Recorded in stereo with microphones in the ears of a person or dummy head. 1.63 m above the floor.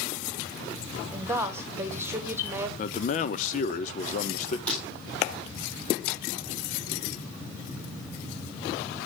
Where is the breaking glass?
5° left (ahead or behind), 2.5 m.